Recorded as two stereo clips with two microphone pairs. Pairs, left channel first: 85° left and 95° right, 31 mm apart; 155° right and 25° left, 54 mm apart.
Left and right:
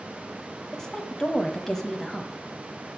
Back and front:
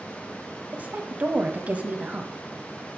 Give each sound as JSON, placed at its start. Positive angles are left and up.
{"t": 0.7, "sound": "a woman speaking", "azimuth_deg": 25, "distance_m": 1.1}